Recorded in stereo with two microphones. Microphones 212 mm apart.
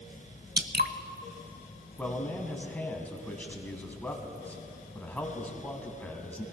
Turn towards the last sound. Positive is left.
turn(degrees=5)  # may be behind; listen again after turning